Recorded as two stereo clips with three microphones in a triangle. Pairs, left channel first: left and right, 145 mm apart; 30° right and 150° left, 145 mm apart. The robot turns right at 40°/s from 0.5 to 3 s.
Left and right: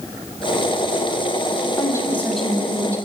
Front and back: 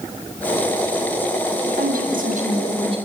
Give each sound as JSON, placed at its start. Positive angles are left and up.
{"t": 1.6, "sound": "a woman speaking", "azimuth_deg": 145, "distance_m": 7.0}